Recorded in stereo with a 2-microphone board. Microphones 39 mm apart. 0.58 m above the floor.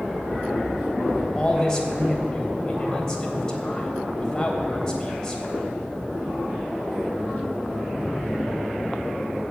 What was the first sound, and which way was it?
A man speaking, 15° left (ahead or behind).